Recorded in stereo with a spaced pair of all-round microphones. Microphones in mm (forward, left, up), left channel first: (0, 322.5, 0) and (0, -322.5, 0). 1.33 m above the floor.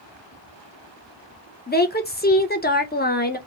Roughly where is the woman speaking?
Centre.